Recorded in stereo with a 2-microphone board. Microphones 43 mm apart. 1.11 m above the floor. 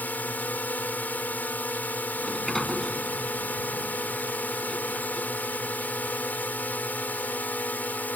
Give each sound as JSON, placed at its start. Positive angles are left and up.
{"t": 0.0, "sound": "a drone", "side_deg": 45}
{"t": 2.2, "sound": "a sliding door", "side_deg": 10}